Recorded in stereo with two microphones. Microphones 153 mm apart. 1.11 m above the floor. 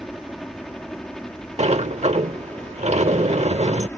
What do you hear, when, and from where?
0.0 s a helicopter: centre (ahead or behind); by 4.0 s 10° left (ahead or behind)
1.6 s a sliding door: 45° right (ahead or behind)